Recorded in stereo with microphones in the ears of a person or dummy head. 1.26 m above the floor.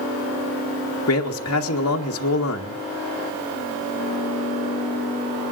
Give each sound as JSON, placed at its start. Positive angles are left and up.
{"t": 1.1, "sound": "a man speaking", "side_deg": 70, "distance_m": 2.0}